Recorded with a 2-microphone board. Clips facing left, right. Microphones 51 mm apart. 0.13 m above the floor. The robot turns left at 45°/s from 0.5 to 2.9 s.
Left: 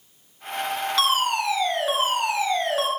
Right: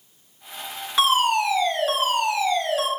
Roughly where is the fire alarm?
Behind right.